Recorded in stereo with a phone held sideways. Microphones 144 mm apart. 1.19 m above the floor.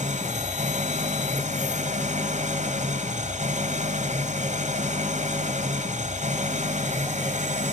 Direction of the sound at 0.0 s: 55° right (ahead or behind).